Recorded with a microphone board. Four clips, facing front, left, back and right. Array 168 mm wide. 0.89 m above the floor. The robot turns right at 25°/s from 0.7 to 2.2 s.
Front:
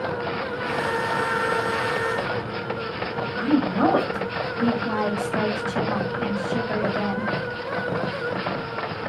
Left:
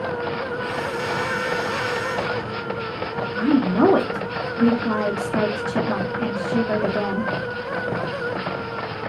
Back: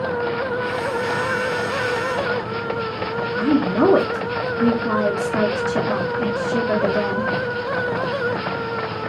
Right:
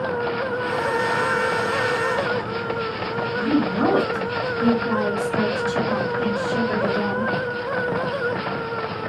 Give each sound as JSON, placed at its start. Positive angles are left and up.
{"t": 3.4, "sound": "a woman speaking", "azimuth_deg": 140, "distance_m": 1.6}